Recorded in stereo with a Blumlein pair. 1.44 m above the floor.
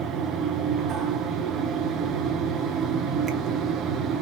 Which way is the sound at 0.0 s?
25° right.